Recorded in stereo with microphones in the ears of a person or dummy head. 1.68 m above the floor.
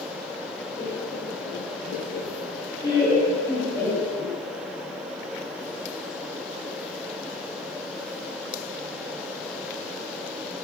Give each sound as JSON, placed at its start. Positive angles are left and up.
{"t": 0.8, "sound": "laughter", "side_deg": 35, "distance_m": 1.0}